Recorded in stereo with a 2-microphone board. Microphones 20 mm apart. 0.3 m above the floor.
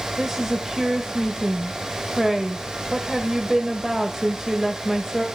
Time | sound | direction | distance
0.2 | a woman speaking | 20° right (ahead or behind) | 1.5 m